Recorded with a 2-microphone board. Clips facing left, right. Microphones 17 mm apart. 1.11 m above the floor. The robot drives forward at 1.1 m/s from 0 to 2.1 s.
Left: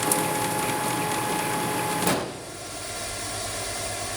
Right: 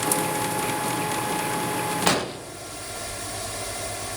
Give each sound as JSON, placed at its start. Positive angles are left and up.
{"t": 2.1, "sound": "an explosion", "side_deg": -35, "distance_m": 0.7}